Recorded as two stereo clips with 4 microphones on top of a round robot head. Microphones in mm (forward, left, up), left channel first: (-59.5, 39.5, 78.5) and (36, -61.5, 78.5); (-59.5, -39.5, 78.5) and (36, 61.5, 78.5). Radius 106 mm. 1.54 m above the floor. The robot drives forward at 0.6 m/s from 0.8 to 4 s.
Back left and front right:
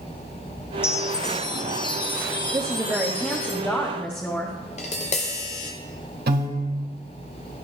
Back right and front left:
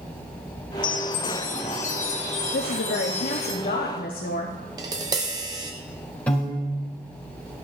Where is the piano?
50° right, 3.5 m.